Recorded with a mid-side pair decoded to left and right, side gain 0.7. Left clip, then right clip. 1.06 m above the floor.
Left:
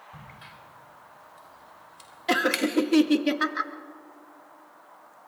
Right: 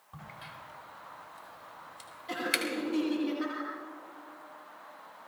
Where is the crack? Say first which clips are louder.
Even; straight ahead, 3 m.